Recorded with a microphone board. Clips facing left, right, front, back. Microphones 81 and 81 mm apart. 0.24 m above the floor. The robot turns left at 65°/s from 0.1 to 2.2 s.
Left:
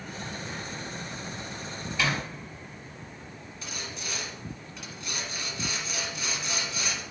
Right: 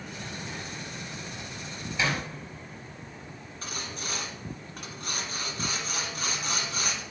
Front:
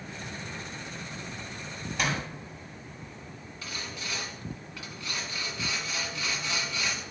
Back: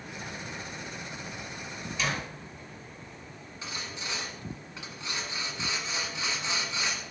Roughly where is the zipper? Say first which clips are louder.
Even, front 2 dB; ahead right.